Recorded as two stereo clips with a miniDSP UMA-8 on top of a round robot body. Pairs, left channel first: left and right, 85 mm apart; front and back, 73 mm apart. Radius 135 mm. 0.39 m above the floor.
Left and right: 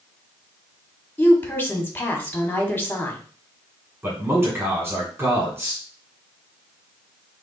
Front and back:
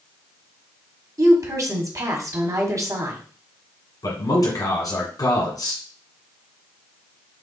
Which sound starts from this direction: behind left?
A woman speaking, at 1.2 s.